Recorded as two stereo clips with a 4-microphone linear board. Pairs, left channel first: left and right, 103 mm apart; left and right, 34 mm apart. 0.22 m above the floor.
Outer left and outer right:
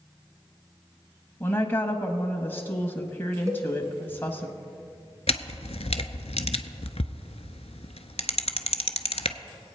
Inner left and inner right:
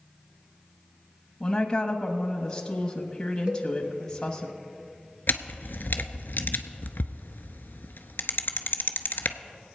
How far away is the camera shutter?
About 0.6 m.